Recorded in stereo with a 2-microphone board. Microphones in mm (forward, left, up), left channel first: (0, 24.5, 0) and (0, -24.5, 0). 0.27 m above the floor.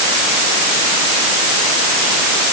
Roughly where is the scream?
No scream in this recording.